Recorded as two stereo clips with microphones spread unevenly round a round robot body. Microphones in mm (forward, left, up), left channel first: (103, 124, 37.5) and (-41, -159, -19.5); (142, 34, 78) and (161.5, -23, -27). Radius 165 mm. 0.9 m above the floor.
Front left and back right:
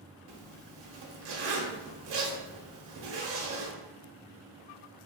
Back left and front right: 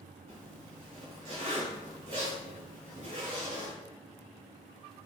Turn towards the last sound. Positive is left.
turn(degrees=-115)